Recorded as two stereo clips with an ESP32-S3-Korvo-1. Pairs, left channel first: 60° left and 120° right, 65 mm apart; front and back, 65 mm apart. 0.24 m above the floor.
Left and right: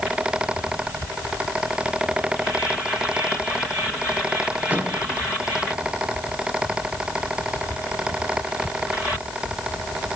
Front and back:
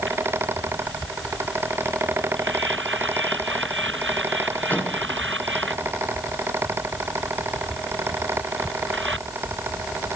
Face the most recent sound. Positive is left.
turn(degrees=-60)